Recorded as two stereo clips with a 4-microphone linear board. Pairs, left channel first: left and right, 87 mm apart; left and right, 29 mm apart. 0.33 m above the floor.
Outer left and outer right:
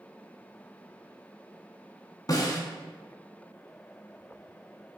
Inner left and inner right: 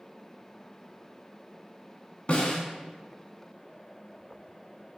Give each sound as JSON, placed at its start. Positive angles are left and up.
{"t": 2.3, "sound": "a snare drum", "side_deg": 45, "distance_m": 1.5}